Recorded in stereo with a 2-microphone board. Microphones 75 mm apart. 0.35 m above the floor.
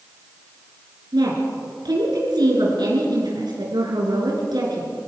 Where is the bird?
No bird in this recording.